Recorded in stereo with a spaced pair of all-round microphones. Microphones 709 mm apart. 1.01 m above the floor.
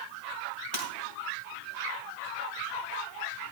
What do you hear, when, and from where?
0.7 s breaking glass: 75° right (ahead or behind), 3.5 m